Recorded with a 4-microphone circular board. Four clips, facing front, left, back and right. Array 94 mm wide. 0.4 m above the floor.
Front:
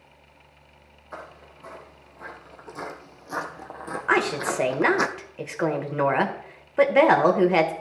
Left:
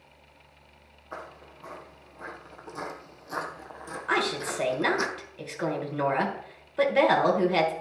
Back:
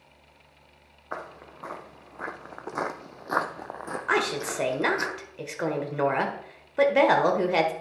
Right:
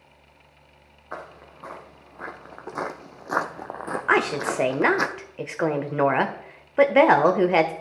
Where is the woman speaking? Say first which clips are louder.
Right 5 dB, front 4 dB; 70° right, 1.3 m.